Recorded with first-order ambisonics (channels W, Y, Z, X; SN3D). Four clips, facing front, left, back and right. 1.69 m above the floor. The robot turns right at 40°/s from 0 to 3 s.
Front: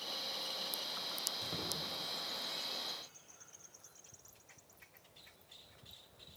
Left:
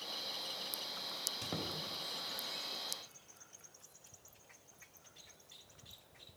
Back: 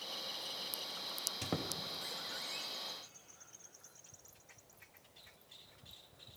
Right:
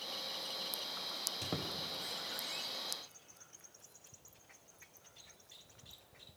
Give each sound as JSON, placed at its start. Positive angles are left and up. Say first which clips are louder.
{"t": 1.4, "sound": "a squeak", "louder": "right 1 dB, even", "azimuth_deg": -170, "distance_m": 0.6}